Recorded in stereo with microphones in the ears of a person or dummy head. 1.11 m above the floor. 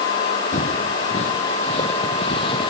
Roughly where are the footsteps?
Left.